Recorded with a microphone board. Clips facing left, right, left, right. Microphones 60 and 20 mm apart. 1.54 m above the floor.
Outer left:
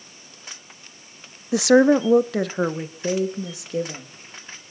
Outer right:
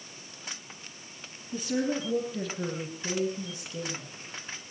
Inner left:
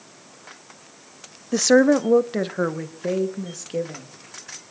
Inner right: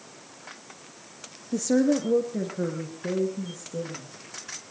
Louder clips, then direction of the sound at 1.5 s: Outer left 15 dB, inner left 7 dB; 80° left.